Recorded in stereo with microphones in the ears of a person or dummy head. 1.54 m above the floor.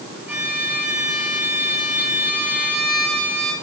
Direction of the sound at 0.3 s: 10° right (ahead or behind).